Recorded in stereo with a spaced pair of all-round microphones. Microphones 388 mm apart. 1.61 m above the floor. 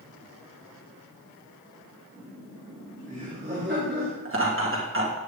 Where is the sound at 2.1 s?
5° right (ahead or behind), 3 m; by 4.2 s 35° right (ahead or behind), 3 m.